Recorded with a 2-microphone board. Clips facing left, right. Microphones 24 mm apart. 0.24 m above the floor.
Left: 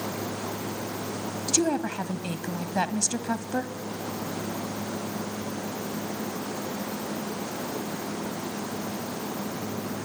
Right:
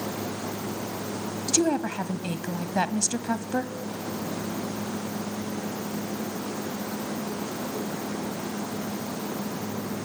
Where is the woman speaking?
Centre (ahead or behind), 1.5 m.